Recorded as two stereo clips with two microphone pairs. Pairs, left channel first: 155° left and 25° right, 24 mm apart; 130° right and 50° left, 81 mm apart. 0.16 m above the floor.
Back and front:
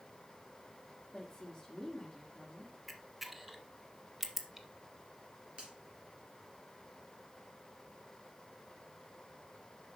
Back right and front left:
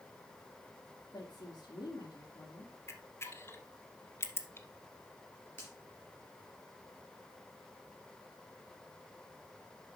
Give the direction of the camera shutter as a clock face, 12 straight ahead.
4 o'clock.